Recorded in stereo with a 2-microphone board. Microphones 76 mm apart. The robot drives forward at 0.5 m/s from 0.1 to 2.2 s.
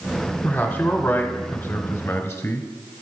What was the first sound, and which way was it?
A man speaking, 25° left (ahead or behind).